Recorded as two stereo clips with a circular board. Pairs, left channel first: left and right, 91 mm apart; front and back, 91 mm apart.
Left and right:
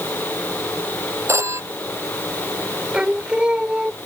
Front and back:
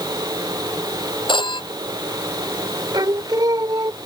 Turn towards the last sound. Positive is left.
turn(degrees=-165)